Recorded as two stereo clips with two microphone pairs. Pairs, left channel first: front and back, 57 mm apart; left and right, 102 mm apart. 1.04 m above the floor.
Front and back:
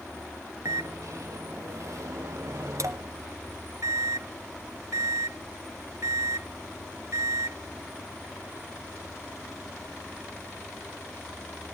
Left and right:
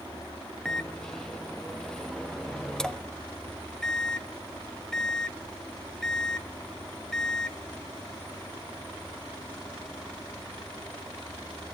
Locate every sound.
0.7 s a microwave: 175° left, 0.8 m